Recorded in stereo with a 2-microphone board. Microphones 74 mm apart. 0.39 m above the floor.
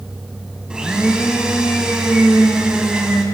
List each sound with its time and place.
0.7 s a blender: 10° right (ahead or behind), 0.7 m